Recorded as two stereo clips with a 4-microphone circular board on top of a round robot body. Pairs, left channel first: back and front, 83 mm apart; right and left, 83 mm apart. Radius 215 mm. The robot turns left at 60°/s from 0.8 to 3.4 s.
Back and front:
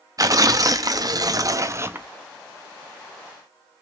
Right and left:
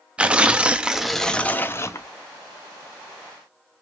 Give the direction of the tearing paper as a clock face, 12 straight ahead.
11 o'clock.